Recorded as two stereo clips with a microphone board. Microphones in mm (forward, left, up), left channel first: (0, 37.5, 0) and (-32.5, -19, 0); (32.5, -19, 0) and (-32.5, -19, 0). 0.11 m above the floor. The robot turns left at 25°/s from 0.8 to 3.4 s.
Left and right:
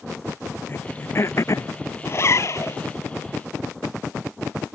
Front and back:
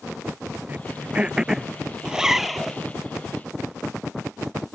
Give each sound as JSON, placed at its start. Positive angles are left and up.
{"t": 0.7, "sound": "throat clearing", "azimuth_deg": 115}
{"t": 2.0, "sound": "a zipper", "azimuth_deg": 105}